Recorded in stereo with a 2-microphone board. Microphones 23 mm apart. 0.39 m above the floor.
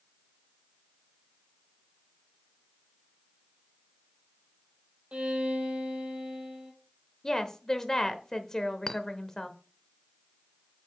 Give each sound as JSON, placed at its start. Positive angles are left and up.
{"t": 5.1, "sound": "a violin", "side_deg": -65, "distance_m": 1.8}
{"t": 7.2, "sound": "a woman speaking", "side_deg": 30, "distance_m": 0.9}
{"t": 8.9, "sound": "a clink", "side_deg": 30, "distance_m": 0.5}